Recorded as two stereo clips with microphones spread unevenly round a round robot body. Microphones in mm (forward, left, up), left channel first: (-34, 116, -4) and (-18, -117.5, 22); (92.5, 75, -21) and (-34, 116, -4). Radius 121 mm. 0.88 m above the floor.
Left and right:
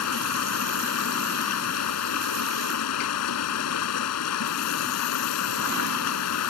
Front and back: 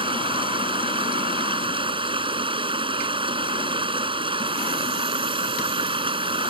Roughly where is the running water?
Behind left.